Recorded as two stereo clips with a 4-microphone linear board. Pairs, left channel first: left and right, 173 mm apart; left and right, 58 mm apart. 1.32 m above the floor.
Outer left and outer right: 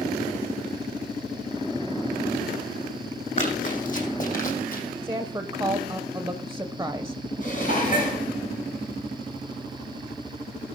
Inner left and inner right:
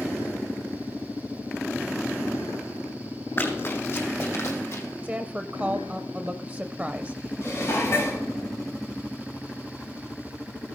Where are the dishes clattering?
50° left (ahead or behind), 4.5 m.